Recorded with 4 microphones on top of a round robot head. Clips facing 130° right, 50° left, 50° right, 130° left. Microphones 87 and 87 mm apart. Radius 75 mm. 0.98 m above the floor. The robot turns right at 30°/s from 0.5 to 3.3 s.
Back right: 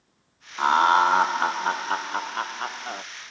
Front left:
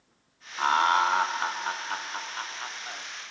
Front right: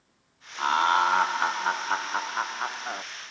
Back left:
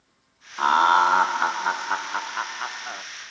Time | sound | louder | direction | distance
0.6 | laughter | back right 4 dB, back left 5 dB | 170° left | 0.9 m